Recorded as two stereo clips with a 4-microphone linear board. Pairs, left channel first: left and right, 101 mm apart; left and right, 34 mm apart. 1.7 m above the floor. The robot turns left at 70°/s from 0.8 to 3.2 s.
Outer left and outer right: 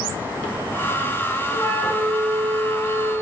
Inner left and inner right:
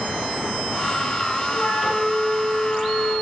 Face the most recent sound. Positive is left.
turn(degrees=-80)